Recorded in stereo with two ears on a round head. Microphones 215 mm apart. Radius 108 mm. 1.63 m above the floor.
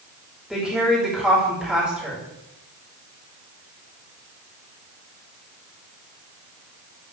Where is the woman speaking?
5° right (ahead or behind), 5 m.